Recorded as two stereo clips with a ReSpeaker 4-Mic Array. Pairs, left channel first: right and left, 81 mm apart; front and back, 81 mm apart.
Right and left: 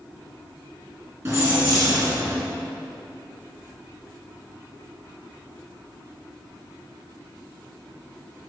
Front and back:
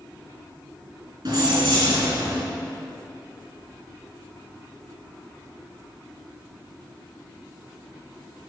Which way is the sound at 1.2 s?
145° left.